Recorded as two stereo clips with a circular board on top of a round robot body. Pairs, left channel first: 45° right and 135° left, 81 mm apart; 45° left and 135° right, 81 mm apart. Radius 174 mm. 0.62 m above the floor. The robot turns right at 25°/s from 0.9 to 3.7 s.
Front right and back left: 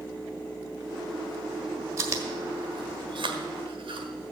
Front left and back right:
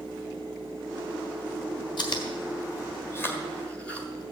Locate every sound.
2.0 s chewing: 80° left, 1.5 m; by 4.1 s 125° left, 1.5 m